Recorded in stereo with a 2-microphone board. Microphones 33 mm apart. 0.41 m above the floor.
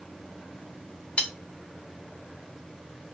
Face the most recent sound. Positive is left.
turn(degrees=35)  # may be behind; listen again after turning